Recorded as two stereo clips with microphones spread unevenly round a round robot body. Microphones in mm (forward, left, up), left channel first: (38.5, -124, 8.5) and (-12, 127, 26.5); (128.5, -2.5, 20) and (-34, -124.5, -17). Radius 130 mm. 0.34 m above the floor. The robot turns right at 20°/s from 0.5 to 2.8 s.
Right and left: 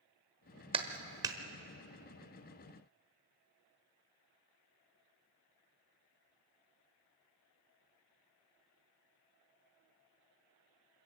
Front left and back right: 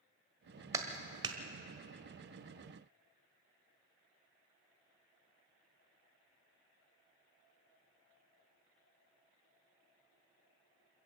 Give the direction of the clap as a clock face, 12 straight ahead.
7 o'clock.